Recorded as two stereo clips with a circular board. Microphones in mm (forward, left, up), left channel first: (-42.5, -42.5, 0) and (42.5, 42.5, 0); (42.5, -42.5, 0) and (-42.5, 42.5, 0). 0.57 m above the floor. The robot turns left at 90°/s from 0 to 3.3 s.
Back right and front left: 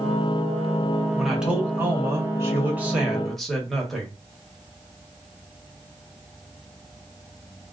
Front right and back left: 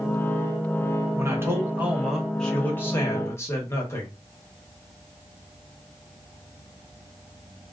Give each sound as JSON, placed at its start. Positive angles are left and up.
{"t": 1.1, "sound": "a man speaking", "azimuth_deg": 145, "distance_m": 1.0}